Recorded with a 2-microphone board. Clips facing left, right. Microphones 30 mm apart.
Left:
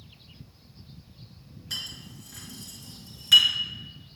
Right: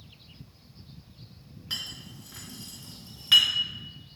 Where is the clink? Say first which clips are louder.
Even; 30° right (ahead or behind), 2 m.